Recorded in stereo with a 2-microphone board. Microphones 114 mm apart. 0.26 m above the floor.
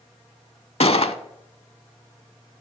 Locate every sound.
0.8 s a gunshot: 65° left (ahead or behind), 0.6 m